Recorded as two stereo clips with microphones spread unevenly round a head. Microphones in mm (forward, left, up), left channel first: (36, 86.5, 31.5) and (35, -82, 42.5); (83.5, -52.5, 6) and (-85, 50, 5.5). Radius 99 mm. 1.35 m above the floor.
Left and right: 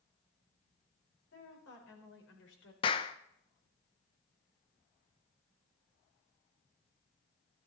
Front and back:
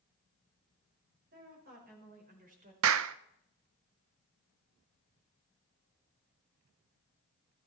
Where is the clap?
155° left, 0.6 m.